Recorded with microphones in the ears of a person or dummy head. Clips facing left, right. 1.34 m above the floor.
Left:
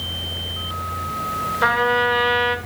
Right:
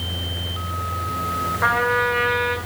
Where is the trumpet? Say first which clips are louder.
Left 2 dB; 45° left (ahead or behind), 1.7 m.